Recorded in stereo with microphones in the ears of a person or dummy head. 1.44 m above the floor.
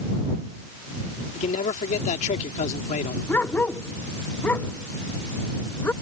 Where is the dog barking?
10° left (ahead or behind).